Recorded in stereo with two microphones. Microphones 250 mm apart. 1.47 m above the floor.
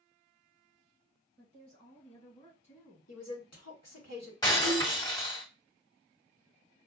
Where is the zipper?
No zipper in this recording.